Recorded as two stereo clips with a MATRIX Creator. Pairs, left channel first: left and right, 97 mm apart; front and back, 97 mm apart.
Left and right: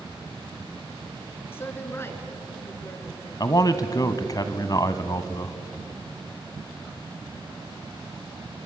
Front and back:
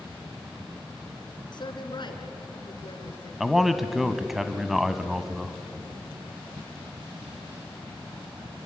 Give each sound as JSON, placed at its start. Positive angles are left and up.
{"t": 1.5, "sound": "a woman speaking", "azimuth_deg": 25, "distance_m": 3.0}
{"t": 3.4, "sound": "a man speaking", "azimuth_deg": 95, "distance_m": 1.3}